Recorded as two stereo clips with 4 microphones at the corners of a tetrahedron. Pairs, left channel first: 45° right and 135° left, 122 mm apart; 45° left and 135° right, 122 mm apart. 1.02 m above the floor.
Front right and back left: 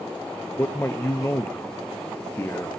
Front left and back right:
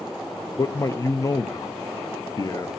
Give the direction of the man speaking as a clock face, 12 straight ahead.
12 o'clock.